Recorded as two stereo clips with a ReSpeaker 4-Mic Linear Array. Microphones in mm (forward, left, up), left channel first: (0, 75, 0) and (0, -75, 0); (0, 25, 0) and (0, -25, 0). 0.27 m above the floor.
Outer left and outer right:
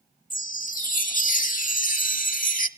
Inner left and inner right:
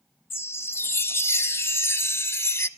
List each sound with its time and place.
0.3 s a chime: 60° left (ahead or behind), 0.6 m